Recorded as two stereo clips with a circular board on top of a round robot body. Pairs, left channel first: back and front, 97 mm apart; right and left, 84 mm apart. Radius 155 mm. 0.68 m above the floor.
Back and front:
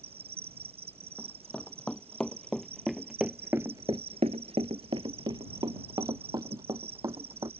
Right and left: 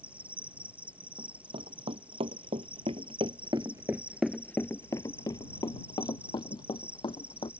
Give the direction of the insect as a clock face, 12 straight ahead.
11 o'clock.